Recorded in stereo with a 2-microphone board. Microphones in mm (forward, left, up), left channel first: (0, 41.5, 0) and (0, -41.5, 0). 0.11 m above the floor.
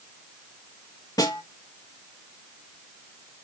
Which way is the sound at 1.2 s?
50° left (ahead or behind).